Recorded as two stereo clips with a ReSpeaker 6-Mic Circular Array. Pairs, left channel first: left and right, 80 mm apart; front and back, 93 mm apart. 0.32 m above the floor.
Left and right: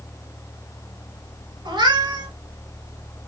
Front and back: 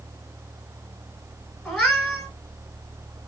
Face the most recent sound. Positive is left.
turn(degrees=-85)